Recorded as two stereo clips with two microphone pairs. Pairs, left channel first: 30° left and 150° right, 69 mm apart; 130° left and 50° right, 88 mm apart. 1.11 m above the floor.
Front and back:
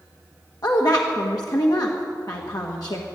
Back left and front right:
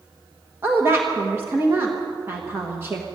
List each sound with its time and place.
0.6 s a woman speaking: 10° left, 1.4 m